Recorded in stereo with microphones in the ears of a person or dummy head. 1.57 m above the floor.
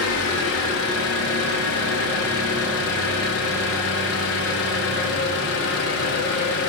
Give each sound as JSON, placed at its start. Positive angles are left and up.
{"t": 0.0, "sound": "an engine running", "side_deg": 65, "distance_m": 1.6}